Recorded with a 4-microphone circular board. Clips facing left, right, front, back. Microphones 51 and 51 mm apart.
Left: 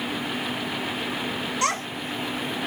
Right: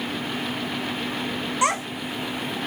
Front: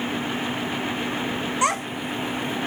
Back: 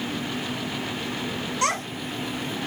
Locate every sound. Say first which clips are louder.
1.6 s a child speaking: right 4 dB, front 2 dB; 45° right, 0.7 m